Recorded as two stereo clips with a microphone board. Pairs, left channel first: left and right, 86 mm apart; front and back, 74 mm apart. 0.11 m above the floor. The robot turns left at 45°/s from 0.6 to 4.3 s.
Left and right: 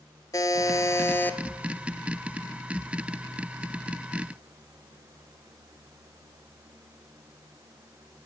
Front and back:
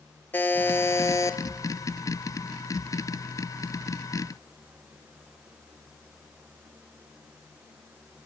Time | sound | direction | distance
0.3 | a buzzer | 55° left | 0.6 m